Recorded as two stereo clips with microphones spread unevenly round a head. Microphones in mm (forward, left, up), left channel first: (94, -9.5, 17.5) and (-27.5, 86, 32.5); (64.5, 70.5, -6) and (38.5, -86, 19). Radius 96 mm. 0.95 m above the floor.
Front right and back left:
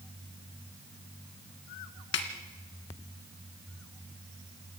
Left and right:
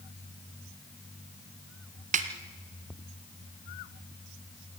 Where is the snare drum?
70° right, 1.8 m.